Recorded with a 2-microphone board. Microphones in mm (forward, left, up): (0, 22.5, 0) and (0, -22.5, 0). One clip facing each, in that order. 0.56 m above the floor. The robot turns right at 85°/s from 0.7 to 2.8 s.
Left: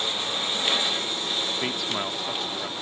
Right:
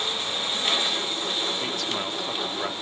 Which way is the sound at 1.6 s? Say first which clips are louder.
Left 1 dB; 140° left.